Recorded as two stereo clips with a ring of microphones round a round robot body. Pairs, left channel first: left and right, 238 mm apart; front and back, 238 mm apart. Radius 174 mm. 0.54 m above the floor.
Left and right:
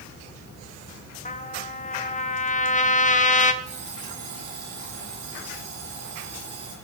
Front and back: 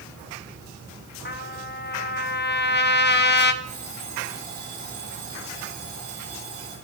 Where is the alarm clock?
115° right, 10 m.